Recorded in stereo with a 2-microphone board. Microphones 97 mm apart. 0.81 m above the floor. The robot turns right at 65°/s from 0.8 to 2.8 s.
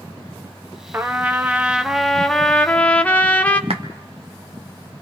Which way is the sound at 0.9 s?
20° right (ahead or behind).